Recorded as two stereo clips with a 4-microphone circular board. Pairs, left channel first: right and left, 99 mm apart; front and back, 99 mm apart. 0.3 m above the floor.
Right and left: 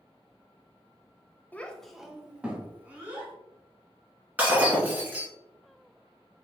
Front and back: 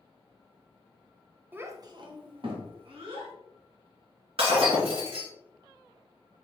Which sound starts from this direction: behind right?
A child speaking, at 1.5 s.